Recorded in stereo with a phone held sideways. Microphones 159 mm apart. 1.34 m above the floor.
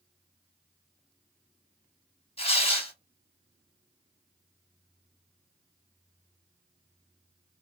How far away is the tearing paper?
About 0.9 m.